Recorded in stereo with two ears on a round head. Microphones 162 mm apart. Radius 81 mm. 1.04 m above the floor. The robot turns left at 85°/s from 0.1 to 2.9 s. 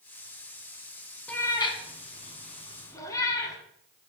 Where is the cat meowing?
5° left (ahead or behind), 1.1 m; by 3.6 s 20° left (ahead or behind), 1.1 m.